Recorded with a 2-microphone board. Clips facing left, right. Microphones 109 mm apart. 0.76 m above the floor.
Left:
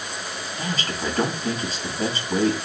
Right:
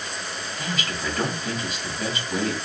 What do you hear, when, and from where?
0.6 s a man speaking: 35° left (ahead or behind), 1.2 m